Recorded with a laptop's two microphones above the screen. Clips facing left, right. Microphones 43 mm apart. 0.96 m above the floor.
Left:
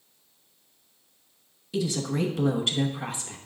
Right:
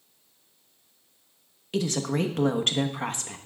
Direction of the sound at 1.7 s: 65° right (ahead or behind).